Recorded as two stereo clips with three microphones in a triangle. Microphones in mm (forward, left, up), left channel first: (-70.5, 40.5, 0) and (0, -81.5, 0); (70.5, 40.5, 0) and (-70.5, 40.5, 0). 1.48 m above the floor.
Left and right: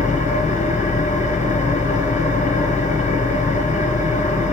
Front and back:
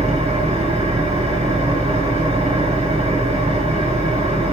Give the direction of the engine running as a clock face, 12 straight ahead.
7 o'clock.